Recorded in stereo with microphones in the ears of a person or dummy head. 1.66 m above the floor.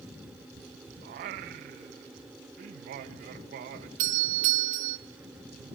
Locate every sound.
1.0 s singing: 40° right (ahead or behind), 1.0 m
4.0 s a doorbell: 40° right (ahead or behind), 1.1 m